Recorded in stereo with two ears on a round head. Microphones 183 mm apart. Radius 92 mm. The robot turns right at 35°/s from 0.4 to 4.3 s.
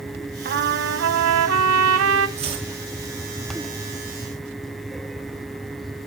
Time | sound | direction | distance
0.5 | a trumpet | 125° right | 1.2 m
2.4 | chopping | 30° right (ahead or behind) | 4.5 m